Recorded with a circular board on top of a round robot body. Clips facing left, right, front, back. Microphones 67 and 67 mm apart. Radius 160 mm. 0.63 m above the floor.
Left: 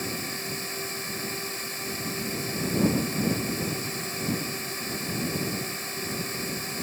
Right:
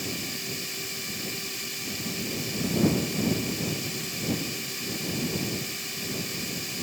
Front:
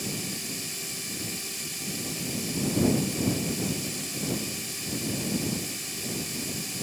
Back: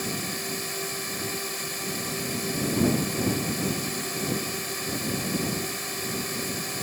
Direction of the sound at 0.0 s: 145° left.